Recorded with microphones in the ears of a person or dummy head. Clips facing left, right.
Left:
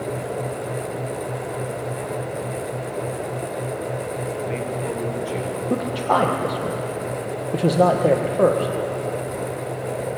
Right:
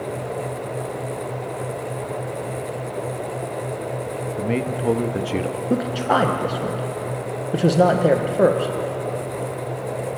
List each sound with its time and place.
4.4 s a man speaking: 75° right (ahead or behind), 1.4 m
5.7 s a man speaking: 5° right (ahead or behind), 1.3 m